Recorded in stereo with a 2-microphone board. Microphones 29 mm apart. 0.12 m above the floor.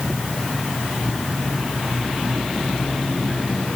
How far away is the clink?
I don't hear a clink.